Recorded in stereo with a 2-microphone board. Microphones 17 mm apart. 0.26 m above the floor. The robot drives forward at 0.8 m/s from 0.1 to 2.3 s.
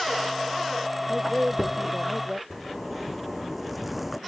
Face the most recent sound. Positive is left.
turn(degrees=-5)  # may be behind; listen again after turning